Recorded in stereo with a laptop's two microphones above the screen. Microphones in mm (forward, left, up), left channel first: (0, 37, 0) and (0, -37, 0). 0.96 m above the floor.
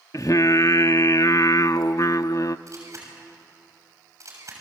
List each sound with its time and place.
0.1 s singing: 50° left (ahead or behind), 0.6 m
2.7 s a camera shutter: 45° right (ahead or behind), 7 m